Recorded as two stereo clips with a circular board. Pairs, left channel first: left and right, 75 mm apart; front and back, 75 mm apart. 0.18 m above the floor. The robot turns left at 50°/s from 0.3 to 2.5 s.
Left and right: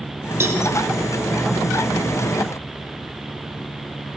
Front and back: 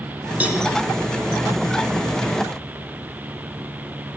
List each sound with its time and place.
0.4 s a cowbell: 120° right, 1.7 m; by 0.6 s 135° right, 1.7 m